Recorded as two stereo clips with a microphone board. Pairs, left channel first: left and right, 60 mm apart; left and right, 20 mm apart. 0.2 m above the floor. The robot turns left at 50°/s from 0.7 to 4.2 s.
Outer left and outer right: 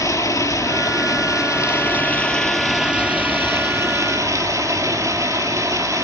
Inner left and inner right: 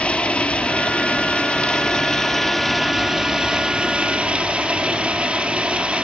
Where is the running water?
100° left, 2.5 m; by 6.0 s 75° right, 2.5 m.